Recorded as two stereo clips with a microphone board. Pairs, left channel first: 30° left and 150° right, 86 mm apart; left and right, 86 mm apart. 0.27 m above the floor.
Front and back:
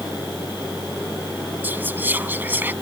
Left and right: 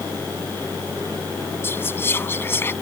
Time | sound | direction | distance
1.6 | whispering | 150° left | ?